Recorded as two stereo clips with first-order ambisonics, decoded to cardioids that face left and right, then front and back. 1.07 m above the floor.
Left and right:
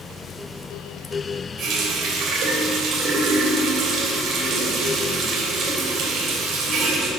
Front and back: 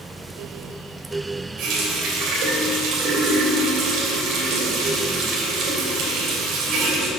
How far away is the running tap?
About 2.5 m.